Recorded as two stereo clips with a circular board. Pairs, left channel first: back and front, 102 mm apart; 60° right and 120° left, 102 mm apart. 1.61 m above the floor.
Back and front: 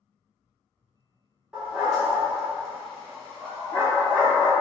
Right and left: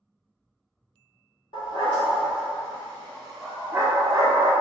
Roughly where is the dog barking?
Right.